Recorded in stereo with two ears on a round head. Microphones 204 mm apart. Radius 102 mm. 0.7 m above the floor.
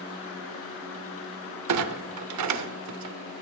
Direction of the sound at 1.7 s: 85° right.